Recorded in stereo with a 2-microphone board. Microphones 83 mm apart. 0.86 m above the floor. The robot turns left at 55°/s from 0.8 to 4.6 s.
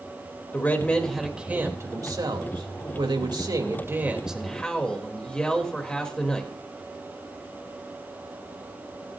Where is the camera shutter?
I don't hear a camera shutter.